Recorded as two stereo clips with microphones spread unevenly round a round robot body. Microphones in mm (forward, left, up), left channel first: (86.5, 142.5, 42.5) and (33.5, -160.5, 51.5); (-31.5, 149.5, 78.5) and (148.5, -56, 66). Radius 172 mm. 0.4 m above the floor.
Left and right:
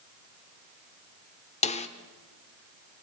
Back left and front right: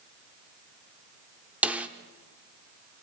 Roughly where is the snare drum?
Ahead left.